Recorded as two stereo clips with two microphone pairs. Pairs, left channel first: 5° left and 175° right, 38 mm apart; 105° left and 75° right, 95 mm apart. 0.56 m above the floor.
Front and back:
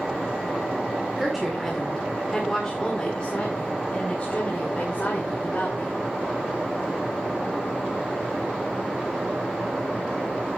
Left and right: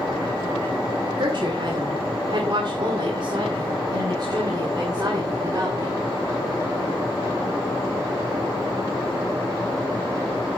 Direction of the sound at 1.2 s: 90° right.